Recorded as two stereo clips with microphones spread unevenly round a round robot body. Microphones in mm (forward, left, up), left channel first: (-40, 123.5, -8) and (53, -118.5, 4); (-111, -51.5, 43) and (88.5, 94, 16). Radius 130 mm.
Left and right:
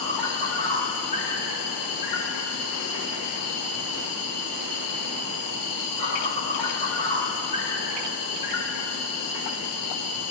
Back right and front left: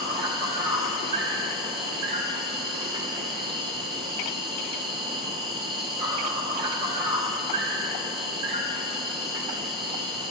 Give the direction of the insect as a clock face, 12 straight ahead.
8 o'clock.